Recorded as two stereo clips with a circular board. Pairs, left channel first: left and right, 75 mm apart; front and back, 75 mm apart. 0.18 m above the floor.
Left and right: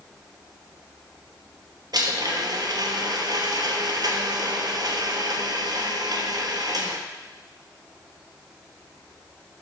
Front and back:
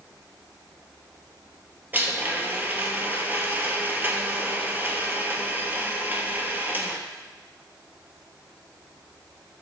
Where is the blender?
115° right, 1.1 m.